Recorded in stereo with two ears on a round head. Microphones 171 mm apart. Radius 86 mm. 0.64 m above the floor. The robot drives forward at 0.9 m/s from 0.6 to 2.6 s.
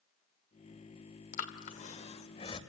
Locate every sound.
1.3 s breathing: 50° left (ahead or behind), 1.8 m; by 2.6 s 35° left (ahead or behind), 2.5 m